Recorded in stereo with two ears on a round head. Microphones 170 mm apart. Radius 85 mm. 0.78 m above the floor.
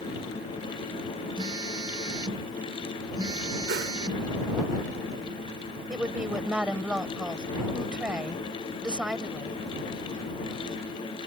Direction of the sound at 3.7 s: 70° right (ahead or behind).